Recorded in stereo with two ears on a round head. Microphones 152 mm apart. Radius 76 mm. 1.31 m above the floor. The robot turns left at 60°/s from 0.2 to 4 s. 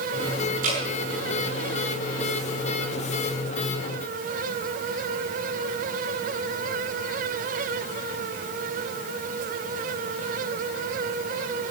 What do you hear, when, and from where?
0.6 s dripping: 50° right (ahead or behind), 7.5 m; by 0.8 s 40° right (ahead or behind), 7.5 m